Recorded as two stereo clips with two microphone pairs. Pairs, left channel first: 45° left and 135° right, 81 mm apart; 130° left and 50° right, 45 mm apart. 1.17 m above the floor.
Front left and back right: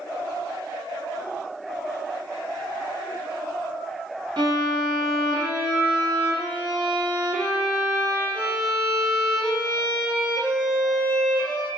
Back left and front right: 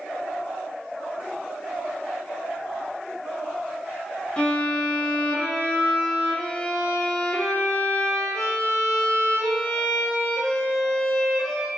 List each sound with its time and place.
4.4 s a violin: 155° right, 1.1 m